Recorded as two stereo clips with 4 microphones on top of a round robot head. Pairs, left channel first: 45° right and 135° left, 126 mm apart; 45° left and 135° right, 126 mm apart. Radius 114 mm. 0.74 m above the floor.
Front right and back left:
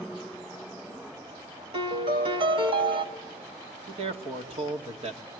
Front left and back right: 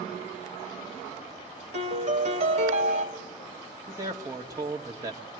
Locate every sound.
1.7 s a piano: 175° right, 1.5 m
3.9 s a man speaking: 165° left, 2.0 m